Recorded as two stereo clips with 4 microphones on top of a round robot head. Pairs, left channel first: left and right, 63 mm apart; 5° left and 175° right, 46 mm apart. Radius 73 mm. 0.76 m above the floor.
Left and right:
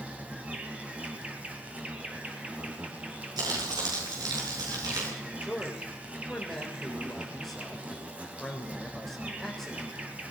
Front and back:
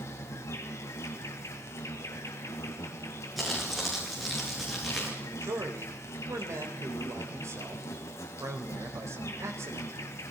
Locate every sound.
0.0 s an insect: 25° right, 3 m
3.4 s crumpling: 85° right, 8 m
5.2 s a man speaking: 175° left, 4 m